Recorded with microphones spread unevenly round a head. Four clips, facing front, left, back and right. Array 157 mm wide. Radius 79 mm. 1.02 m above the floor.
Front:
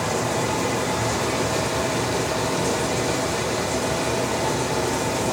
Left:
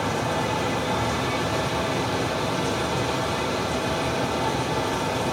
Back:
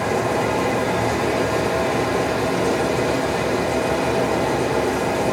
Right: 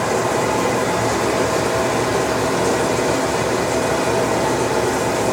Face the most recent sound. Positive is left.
turn(degrees=-115)